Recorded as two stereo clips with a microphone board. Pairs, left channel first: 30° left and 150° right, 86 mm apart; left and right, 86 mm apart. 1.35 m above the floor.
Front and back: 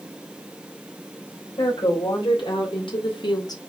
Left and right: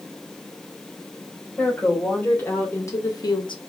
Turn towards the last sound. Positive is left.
turn(degrees=75)